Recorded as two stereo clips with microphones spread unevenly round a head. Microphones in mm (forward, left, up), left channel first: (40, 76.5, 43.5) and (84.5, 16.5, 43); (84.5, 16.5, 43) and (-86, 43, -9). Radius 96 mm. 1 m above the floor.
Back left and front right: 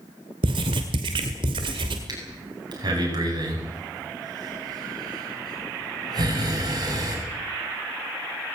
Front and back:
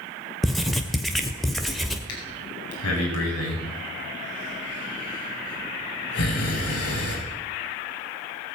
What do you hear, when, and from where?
0.4 s writing: 95° right, 1.8 m
2.1 s breathing: 25° right, 8.5 m